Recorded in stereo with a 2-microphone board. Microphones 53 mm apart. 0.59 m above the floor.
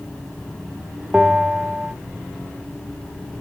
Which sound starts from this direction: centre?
A bell, at 1.1 s.